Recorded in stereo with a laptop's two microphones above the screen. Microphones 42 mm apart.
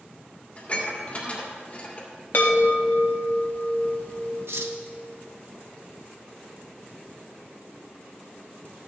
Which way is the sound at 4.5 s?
85° right.